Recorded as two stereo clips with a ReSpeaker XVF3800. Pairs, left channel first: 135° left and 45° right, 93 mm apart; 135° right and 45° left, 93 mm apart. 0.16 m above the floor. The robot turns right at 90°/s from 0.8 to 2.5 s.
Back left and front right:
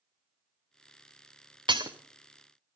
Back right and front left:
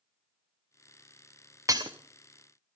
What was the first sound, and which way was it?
Breaking glass, 10° right.